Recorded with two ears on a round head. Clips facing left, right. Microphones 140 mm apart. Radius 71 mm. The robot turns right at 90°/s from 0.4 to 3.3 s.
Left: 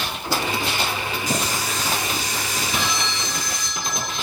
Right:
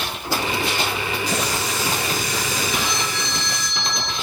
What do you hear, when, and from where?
1.3 s a running tap: 140° left, 8 m; by 3.7 s 35° right, 8 m
2.7 s a phone ringing: straight behind, 6.5 m; by 4.1 s 125° right, 6.5 m